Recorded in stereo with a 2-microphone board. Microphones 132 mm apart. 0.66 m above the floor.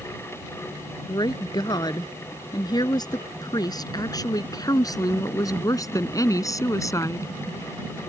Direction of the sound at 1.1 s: 30° left (ahead or behind).